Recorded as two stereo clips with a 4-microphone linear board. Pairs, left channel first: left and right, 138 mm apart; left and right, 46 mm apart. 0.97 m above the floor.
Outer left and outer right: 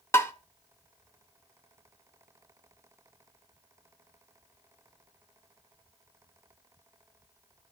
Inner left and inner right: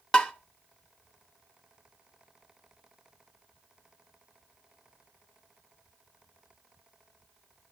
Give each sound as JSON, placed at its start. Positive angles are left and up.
{"t": 0.1, "sound": "tapping", "side_deg": 20, "distance_m": 0.9}